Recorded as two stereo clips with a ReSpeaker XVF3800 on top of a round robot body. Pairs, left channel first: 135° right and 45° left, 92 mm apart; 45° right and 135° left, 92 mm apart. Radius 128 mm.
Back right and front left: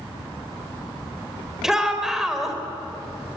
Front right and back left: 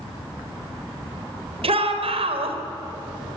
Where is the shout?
130° left, 4 m.